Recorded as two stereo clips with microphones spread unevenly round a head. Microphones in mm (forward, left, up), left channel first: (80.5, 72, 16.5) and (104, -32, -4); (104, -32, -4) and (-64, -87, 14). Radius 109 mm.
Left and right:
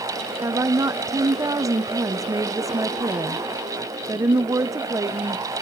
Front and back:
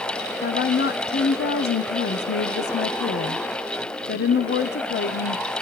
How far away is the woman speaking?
About 0.6 m.